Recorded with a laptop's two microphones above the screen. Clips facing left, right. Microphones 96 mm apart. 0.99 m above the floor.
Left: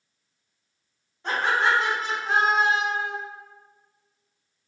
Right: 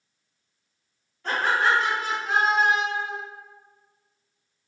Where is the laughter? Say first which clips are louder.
Even; 20° left (ahead or behind), 1.9 m; by 3.1 s 55° left (ahead or behind), 0.9 m.